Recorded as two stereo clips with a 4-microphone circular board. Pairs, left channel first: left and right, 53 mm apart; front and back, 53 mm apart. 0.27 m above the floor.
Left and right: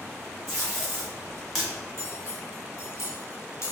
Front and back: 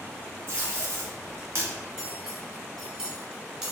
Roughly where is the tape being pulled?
Behind.